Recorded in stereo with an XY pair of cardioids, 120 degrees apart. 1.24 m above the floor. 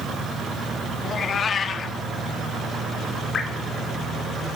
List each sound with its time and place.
1.0 s a cat meowing: 45° left, 1.3 m
3.3 s dripping: 40° left, 3.5 m